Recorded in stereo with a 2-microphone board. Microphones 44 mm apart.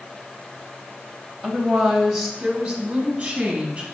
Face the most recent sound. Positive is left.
turn(degrees=-20)  # may be behind; listen again after turning